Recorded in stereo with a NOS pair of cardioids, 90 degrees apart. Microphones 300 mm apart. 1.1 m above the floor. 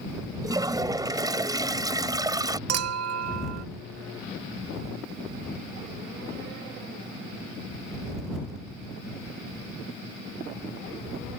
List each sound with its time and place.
0.4 s a toilet flushing: 10° right
2.7 s a clink: 55° right